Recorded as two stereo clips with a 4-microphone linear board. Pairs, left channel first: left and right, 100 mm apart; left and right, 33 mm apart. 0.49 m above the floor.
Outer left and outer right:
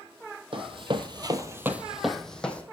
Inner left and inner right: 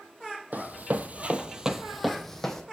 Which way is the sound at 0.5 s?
60° right (ahead or behind).